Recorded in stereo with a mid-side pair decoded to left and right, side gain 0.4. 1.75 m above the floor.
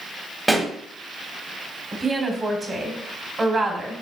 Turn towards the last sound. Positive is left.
turn(degrees=-35)